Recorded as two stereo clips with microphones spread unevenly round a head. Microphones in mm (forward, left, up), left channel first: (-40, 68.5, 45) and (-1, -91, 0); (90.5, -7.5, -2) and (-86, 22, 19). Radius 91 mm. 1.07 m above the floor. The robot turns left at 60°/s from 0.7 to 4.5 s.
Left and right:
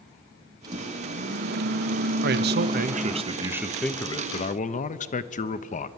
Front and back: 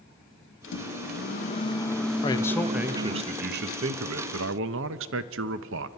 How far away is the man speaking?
About 0.8 m.